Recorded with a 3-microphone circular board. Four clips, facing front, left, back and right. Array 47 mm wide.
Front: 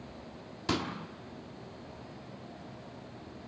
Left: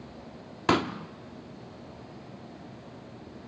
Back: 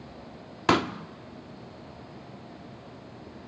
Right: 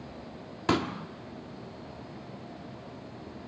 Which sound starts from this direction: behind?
A pop, at 0.7 s.